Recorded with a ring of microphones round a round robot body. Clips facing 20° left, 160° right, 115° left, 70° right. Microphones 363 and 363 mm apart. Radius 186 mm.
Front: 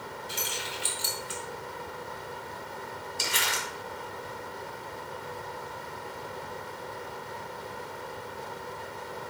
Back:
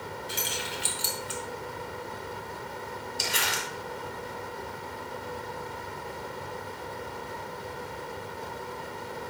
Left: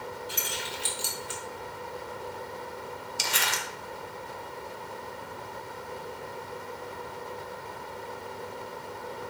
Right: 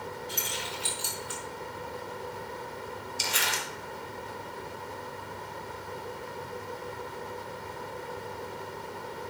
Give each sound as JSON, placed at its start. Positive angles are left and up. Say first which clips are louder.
{"t": 0.3, "sound": "keys jangling", "louder": "back 2 dB, even", "azimuth_deg": -175, "distance_m": 2.0}
{"t": 3.2, "sound": "crumpling", "louder": "even, left 1 dB", "azimuth_deg": 105, "distance_m": 1.9}